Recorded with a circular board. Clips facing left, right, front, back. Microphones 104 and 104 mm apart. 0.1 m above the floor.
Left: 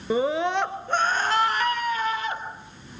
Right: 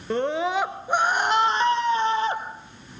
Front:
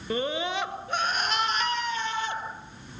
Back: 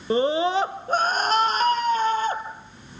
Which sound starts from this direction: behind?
A scream, at 0.1 s.